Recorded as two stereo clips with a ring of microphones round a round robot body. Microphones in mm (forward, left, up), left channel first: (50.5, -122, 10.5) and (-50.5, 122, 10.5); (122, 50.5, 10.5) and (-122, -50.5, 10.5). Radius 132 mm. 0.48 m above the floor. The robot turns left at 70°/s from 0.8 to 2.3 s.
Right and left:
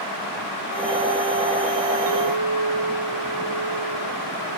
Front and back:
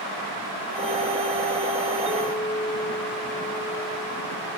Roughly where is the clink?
Behind left.